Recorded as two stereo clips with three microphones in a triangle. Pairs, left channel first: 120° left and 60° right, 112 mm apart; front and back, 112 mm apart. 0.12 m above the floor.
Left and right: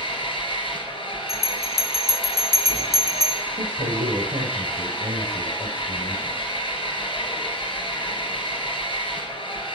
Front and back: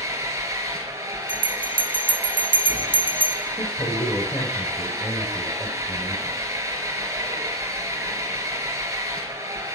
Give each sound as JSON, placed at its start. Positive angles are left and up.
{"t": 0.0, "sound": "an engine running", "azimuth_deg": 125, "distance_m": 1.4}
{"t": 1.3, "sound": "a bell", "azimuth_deg": -20, "distance_m": 0.7}
{"t": 3.6, "sound": "a man speaking", "azimuth_deg": -55, "distance_m": 3.0}